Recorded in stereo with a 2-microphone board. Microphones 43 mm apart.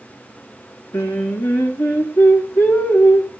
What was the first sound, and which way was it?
Singing, 75° left (ahead or behind).